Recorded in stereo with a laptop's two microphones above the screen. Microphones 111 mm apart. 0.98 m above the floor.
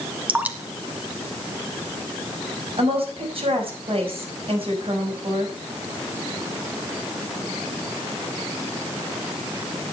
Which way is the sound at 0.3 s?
15° right (ahead or behind).